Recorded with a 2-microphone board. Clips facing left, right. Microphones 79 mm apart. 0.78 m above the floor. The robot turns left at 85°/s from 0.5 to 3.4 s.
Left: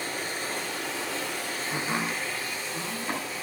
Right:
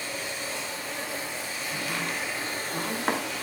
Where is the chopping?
50° left (ahead or behind), 2.5 m; by 3.2 s 70° right (ahead or behind), 2.5 m.